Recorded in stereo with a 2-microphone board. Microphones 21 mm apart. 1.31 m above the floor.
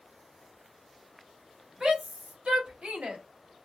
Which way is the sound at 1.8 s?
65° right (ahead or behind).